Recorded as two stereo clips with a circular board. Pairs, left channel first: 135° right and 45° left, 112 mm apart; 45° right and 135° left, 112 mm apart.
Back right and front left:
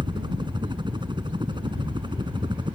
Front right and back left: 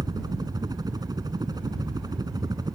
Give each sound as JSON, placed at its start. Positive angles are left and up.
{"t": 0.0, "sound": "a helicopter", "azimuth_deg": 85}